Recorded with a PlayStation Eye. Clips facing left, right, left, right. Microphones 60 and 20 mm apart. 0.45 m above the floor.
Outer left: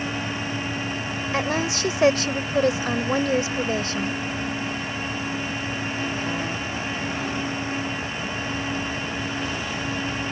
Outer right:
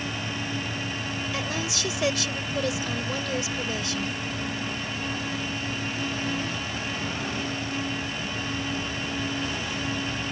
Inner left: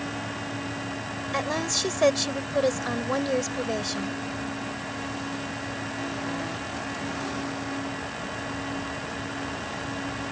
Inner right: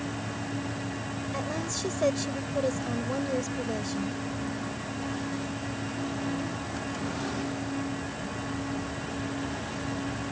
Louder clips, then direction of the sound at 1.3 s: Outer left 10 dB, inner left 8 dB; 45° left (ahead or behind).